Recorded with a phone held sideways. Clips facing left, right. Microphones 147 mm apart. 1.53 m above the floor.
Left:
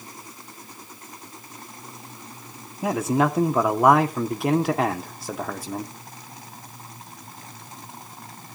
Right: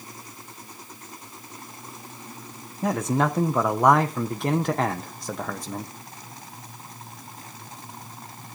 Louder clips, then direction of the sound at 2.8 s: Left 2 dB; 5° left (ahead or behind).